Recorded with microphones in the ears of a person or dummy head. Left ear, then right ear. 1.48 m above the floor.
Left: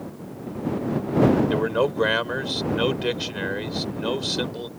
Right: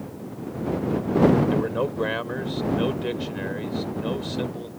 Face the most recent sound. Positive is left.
turn(degrees=50)  # may be behind; listen again after turning